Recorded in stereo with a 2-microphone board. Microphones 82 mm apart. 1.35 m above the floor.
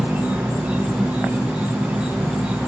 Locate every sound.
0.0 s an insect: 15° right (ahead or behind), 0.8 m